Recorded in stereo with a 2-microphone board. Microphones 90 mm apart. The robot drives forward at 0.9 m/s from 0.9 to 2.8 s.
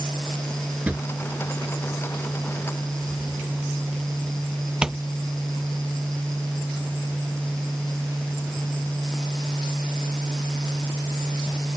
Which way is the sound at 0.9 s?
15° right (ahead or behind).